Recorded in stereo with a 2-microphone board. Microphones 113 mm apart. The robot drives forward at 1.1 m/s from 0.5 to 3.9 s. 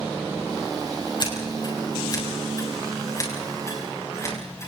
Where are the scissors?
40° left (ahead or behind), 5.5 m; by 4.7 s 25° left (ahead or behind), 8 m.